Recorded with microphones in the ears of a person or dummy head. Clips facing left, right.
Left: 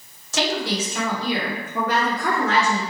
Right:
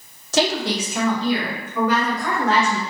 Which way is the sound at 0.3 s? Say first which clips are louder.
Right 3 dB; 40° right (ahead or behind).